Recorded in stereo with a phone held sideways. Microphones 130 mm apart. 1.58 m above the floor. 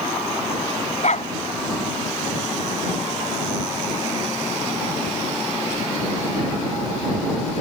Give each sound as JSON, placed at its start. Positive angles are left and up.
{"t": 1.0, "sound": "a dog barking", "side_deg": 65}